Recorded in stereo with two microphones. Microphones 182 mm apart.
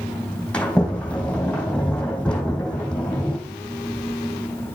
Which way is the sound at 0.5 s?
5° left (ahead or behind).